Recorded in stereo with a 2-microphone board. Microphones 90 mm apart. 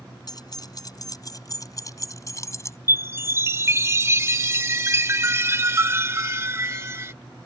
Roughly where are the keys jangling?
Left.